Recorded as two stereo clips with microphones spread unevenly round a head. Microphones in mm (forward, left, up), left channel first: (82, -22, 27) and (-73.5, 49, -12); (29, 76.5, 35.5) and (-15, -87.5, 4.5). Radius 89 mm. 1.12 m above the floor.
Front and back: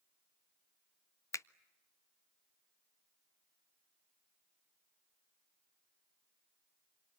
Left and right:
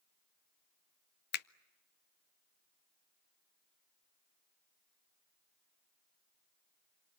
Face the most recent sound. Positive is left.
turn(degrees=60)